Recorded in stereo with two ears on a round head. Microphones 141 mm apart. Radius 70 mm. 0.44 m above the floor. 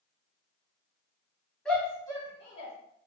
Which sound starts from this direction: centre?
A shout, at 1.6 s.